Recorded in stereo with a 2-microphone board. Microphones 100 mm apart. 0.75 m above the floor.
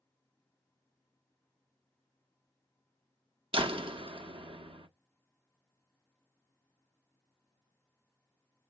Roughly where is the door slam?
Right.